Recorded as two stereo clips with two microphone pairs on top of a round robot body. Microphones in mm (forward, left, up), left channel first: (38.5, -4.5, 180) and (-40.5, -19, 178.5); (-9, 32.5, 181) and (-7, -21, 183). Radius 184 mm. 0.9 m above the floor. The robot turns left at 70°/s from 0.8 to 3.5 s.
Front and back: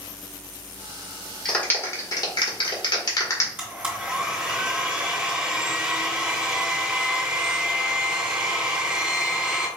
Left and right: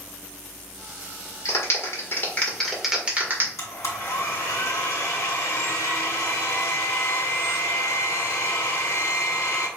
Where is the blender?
115° left, 1.9 m.